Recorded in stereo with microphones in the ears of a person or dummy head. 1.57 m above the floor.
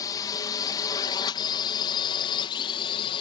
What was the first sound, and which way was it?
A drone, 20° left (ahead or behind).